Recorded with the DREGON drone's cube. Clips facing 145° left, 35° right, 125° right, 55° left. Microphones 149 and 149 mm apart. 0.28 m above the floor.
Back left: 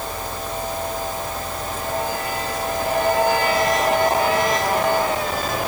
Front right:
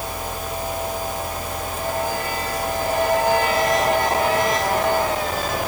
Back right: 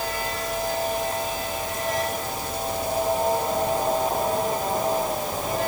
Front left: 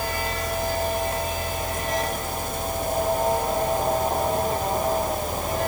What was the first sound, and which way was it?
Only background noise.